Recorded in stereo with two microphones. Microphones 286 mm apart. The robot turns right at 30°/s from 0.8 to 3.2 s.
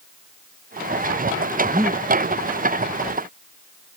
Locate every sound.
1.6 s breathing: 15° right (ahead or behind); by 2.0 s 10° right (ahead or behind)